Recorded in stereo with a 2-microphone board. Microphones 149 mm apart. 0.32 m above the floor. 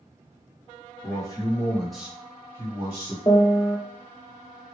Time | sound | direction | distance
1.0 | a man speaking | 30° left (ahead or behind) | 1.2 m
3.3 | a piano | 35° left (ahead or behind) | 0.7 m